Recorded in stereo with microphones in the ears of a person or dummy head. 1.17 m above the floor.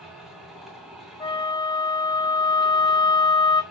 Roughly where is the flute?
Left.